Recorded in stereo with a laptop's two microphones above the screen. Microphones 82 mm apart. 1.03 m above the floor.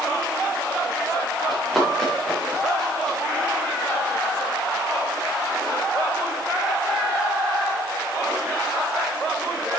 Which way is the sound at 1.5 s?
5° left (ahead or behind).